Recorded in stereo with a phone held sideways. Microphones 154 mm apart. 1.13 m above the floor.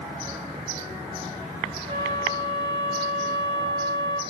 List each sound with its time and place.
1.9 s a flute: 40° right (ahead or behind), 0.6 m